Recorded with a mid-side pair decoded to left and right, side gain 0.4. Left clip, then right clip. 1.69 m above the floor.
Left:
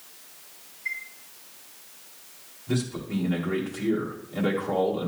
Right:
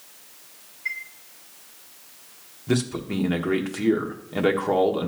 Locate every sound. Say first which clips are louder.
0.8 s a chime: right 2 dB; 50° right, 1.9 m
2.7 s a man speaking: right 5 dB; 65° right, 1.3 m